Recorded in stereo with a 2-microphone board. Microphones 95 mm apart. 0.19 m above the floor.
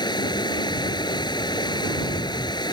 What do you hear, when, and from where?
0.0 s running water: 50° left (ahead or behind)